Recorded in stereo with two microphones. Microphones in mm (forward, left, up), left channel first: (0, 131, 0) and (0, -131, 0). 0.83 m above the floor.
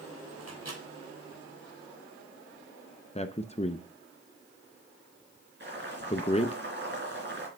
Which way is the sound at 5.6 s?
45° right (ahead or behind).